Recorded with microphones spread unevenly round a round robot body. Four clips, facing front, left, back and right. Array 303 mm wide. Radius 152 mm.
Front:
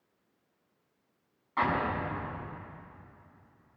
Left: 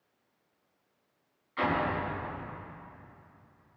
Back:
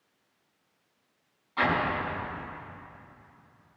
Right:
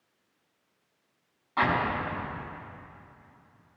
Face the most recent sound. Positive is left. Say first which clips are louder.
# right 3 dB, back 2 dB
turn(degrees=-65)